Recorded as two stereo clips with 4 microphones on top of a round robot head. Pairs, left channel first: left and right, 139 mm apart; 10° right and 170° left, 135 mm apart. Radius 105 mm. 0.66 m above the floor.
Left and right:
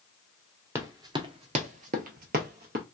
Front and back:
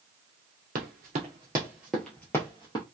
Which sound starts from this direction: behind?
Running footsteps, at 0.8 s.